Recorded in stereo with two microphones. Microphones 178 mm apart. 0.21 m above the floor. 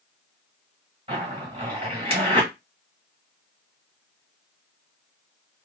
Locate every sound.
1.1 s a zipper: 35° right (ahead or behind), 1.5 m